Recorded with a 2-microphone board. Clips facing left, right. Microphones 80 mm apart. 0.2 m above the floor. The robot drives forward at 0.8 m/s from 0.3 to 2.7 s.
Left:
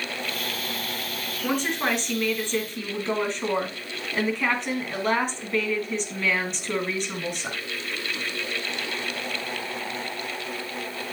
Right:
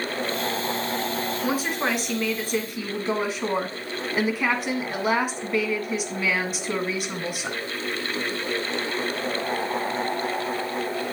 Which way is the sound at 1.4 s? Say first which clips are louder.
Left 2 dB; 5° right (ahead or behind).